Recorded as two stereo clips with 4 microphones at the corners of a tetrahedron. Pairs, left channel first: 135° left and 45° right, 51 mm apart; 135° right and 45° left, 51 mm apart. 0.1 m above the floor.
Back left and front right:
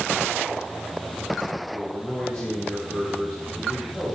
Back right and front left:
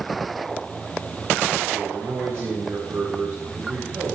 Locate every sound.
1.7 s a man speaking: 70° left, 8.5 m